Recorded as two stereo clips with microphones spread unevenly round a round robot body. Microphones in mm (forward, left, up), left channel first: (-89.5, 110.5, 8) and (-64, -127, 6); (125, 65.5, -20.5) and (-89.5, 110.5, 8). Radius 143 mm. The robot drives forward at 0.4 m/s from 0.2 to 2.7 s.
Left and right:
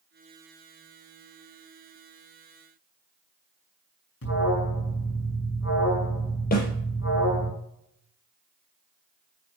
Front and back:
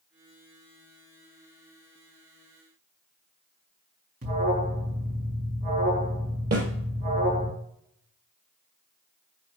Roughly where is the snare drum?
Behind left.